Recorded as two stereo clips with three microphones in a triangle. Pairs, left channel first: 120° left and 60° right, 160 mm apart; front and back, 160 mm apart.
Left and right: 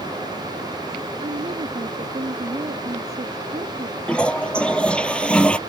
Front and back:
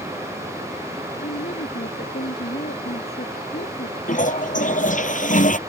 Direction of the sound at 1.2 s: 15° right.